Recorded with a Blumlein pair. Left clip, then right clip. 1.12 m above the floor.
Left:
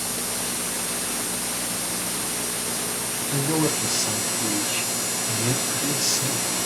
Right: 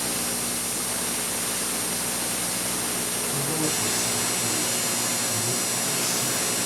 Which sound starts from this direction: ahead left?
A man speaking, at 3.3 s.